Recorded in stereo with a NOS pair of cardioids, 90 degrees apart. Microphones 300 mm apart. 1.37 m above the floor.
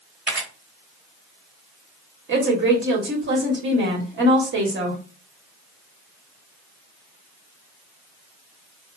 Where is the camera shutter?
5° right, 1.7 m.